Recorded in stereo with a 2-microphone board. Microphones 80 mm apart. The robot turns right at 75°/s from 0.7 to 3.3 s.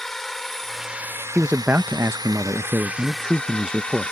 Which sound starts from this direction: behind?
A man speaking, at 1.4 s.